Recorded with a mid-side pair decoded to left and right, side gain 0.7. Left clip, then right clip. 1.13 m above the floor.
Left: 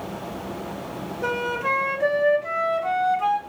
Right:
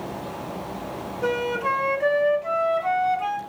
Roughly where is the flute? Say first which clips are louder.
Even; ahead.